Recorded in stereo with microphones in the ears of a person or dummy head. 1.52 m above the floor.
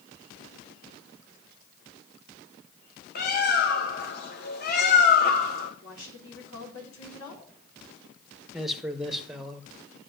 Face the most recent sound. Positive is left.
turn(degrees=0)  # may be behind; listen again after turning